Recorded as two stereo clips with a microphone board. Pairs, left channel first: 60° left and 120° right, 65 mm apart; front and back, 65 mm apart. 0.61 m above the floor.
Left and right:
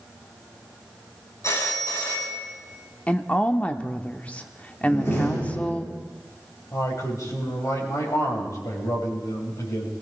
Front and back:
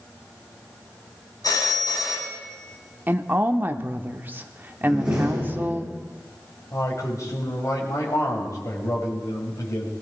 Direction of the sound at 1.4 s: 20° left.